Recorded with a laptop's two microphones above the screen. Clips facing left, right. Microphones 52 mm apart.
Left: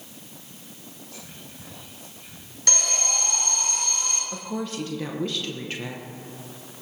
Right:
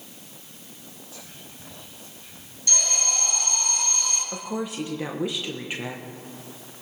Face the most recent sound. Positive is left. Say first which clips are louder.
# right 1 dB
turn(degrees=-15)  # may be behind; listen again after turning